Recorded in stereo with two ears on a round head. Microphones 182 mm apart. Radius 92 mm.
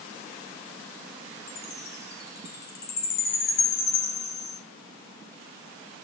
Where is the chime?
50° left (ahead or behind), 5 m.